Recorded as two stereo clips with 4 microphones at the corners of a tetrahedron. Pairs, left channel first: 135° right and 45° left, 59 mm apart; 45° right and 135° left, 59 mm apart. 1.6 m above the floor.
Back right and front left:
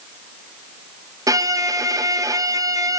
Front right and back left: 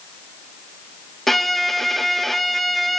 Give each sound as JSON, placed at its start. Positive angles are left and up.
{"t": 1.3, "sound": "a violin", "azimuth_deg": 40, "distance_m": 0.7}